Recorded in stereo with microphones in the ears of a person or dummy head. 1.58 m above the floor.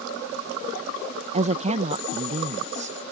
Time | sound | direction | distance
1.3 | a woman speaking | 35° right (ahead or behind) | ?